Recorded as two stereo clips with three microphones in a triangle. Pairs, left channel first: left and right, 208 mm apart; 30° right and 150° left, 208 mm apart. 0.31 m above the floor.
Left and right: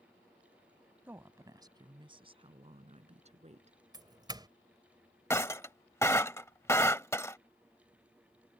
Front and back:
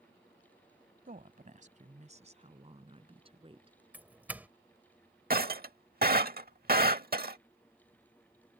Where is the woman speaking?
170° right; by 3.8 s 145° right.